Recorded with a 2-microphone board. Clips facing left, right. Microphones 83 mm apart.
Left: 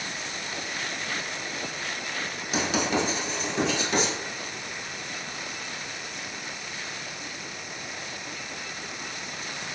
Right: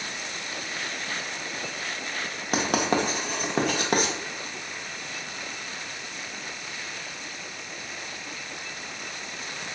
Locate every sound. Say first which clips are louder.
2.5 s writing: right 2 dB; 55° right (ahead or behind), 0.6 m